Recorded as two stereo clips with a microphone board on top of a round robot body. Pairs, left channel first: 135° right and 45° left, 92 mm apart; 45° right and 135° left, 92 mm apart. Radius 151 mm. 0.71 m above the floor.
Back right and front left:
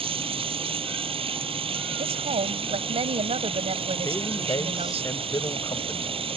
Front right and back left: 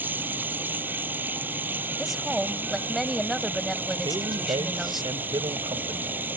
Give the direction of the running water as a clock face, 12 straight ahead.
10 o'clock.